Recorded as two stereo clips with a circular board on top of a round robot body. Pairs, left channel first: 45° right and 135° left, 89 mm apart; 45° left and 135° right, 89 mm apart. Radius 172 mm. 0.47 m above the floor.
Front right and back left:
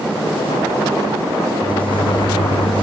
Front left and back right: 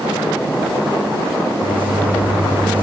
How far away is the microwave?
About 3.5 m.